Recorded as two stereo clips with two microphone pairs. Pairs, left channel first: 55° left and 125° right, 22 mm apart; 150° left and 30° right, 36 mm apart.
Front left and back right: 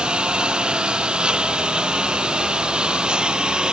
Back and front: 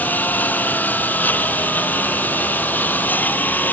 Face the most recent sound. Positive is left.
turn(degrees=-175)